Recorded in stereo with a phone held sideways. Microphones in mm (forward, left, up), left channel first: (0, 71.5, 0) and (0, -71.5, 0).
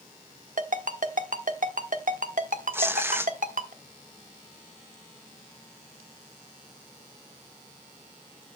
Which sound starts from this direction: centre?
Tearing paper, at 2.7 s.